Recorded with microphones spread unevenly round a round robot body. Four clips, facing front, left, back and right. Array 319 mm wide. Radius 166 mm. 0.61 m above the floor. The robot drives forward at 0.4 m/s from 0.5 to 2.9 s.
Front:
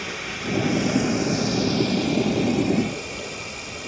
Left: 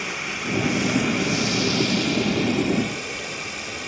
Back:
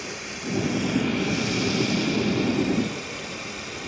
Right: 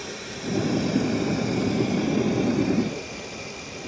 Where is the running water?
55° left, 0.9 m; by 3.9 s 125° left, 0.9 m.